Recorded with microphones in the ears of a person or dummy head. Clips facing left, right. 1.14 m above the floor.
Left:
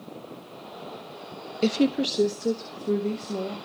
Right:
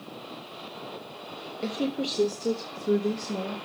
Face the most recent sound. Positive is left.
turn(degrees=-15)  # may be behind; listen again after turning